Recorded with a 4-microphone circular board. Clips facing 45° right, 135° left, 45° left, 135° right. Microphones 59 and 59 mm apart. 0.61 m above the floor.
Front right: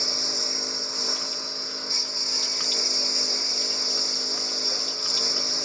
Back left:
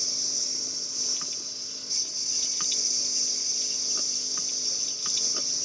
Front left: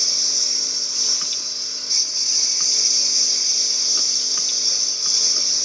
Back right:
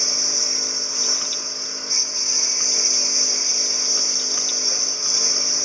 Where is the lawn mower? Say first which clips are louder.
Front right 10 dB, back right 4 dB; 75° right.